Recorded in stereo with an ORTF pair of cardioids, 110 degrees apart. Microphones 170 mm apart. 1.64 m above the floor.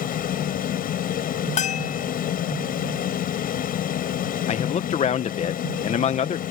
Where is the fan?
55° left.